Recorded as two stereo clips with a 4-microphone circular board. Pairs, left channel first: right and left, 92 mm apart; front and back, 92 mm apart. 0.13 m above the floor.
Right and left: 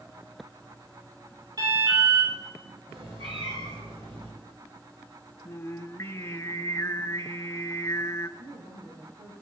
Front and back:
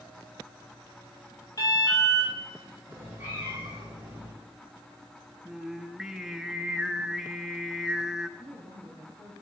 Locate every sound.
1.6 s an alarm: 50° left, 8 m
2.9 s a cat meowing: 105° left, 9 m
5.5 s singing: 100° right, 0.9 m
8.4 s a woman speaking: 100° left, 6.5 m